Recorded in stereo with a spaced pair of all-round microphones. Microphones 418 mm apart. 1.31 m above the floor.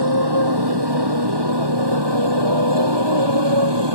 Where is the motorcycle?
65° right (ahead or behind); by 4.0 s 75° right (ahead or behind).